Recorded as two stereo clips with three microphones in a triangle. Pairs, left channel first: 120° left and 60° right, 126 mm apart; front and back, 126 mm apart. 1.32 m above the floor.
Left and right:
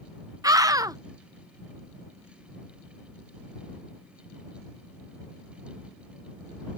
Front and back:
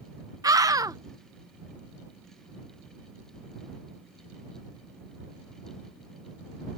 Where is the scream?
120° right.